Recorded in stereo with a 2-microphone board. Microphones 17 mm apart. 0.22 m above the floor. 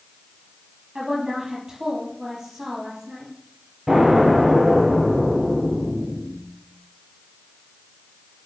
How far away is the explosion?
About 6 m.